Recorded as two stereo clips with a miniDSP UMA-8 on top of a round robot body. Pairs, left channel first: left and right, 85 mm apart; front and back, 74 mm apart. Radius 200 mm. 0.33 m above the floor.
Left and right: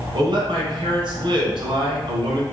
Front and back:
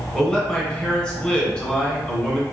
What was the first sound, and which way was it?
A man speaking, 75° right.